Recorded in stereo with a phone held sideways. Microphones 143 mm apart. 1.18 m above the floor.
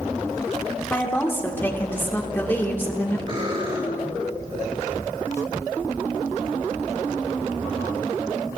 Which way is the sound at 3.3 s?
45° right (ahead or behind).